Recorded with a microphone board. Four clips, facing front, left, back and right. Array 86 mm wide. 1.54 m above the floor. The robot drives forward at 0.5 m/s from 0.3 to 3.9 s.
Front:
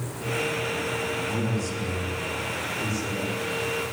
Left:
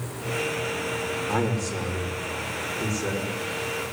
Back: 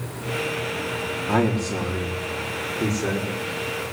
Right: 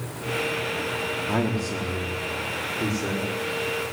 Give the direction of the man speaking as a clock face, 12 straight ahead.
5 o'clock.